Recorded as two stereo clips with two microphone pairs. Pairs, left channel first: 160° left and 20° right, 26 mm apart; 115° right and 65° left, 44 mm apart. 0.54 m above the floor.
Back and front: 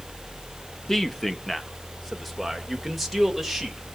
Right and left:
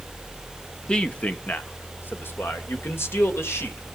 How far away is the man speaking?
About 0.8 m.